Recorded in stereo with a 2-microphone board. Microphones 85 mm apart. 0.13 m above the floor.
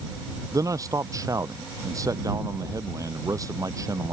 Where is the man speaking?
40° right (ahead or behind).